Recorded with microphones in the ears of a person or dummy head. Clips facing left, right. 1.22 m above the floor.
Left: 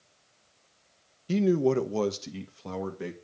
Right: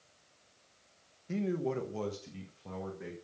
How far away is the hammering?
I don't hear hammering.